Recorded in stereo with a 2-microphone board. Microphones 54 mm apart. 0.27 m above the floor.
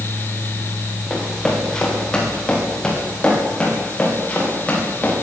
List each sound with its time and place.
1.1 s running footsteps: 15° left (ahead or behind), 9 m; by 5.1 s 25° left (ahead or behind), 11.5 m